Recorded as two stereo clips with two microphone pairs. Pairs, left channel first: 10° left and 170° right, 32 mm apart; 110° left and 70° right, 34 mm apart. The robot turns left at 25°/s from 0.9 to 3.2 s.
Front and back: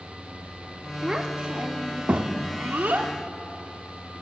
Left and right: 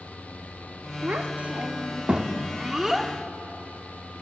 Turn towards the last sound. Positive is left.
turn(degrees=-155)